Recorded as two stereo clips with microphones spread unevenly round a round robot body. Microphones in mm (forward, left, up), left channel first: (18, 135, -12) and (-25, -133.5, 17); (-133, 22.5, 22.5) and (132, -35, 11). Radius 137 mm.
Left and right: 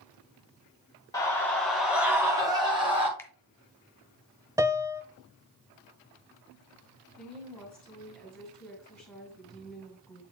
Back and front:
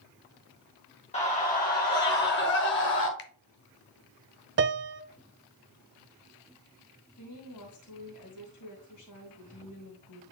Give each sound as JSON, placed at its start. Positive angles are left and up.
{"t": 1.1, "sound": "a scream", "azimuth_deg": 130, "distance_m": 1.4}
{"t": 3.2, "sound": "a finger snap", "azimuth_deg": 150, "distance_m": 0.8}
{"t": 4.6, "sound": "a piano", "azimuth_deg": -15, "distance_m": 0.6}
{"t": 7.2, "sound": "a woman speaking", "azimuth_deg": 165, "distance_m": 2.5}